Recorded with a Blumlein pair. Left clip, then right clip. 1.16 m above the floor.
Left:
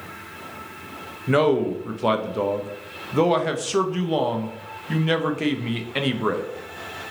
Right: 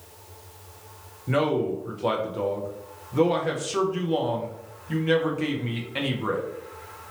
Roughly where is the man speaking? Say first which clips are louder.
Left 5 dB; ahead.